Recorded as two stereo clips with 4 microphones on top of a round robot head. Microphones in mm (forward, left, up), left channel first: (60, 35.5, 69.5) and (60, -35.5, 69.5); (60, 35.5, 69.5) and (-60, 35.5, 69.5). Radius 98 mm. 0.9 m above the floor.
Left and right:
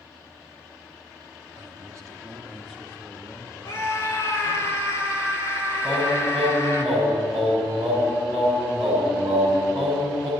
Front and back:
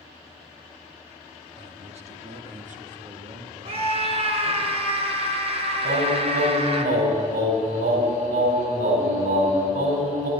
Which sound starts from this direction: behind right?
A man speaking, at 1.6 s.